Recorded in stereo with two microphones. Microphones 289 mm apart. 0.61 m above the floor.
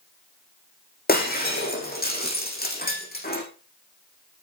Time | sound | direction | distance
1.1 | breaking glass | 30° left (ahead or behind) | 6.5 m